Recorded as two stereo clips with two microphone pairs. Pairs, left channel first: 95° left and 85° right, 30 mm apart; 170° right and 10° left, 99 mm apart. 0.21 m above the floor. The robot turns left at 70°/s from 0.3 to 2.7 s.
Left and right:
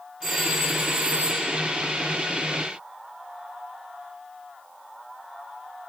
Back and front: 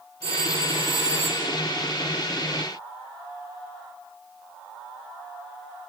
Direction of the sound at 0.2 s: 15° left.